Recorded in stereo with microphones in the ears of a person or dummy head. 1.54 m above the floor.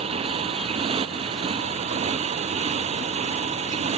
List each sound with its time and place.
0.0 s a motorcycle: 35° right (ahead or behind)